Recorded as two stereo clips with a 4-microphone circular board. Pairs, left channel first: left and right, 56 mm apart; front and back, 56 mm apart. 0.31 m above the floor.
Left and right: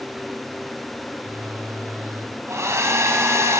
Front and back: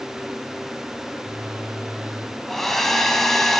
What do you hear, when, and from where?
1.1 s a phone buzzing: 110° right, 3.5 m
2.5 s a hair dryer: 85° right, 2.0 m